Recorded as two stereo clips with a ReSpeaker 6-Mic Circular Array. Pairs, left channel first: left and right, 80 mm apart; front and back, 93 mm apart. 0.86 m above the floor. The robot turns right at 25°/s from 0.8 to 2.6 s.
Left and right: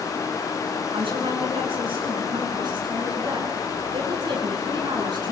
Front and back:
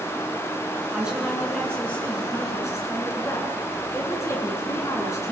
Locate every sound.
0.9 s a woman speaking: 100° right, 8.5 m; by 5.3 s 60° right, 8.5 m